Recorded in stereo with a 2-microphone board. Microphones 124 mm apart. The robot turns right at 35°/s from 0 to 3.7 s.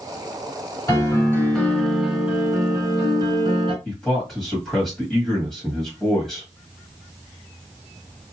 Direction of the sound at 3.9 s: 5° left (ahead or behind).